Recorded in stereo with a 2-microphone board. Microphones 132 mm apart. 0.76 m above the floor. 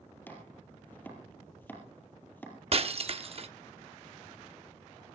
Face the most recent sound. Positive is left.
turn(degrees=-50)  # may be behind; listen again after turning